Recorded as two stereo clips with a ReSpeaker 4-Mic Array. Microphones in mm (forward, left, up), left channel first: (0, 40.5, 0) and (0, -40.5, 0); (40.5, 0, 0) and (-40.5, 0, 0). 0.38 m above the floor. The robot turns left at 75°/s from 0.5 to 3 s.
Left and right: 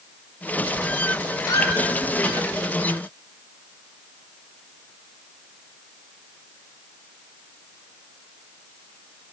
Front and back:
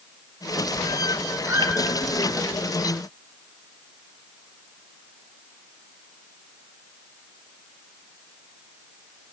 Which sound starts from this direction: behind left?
A squeak, at 1.4 s.